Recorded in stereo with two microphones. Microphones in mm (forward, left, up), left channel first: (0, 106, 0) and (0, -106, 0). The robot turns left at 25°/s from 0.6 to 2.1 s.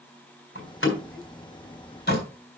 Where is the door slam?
85° left, 3.5 m; by 2.2 s 55° left (ahead or behind), 3.5 m.